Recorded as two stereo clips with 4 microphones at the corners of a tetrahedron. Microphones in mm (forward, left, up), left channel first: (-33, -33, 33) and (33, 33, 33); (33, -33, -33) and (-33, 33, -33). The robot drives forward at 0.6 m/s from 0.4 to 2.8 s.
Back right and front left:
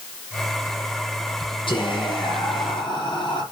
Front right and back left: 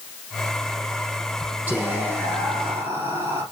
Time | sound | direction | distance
1.7 | whispering | 155° right | 4.5 m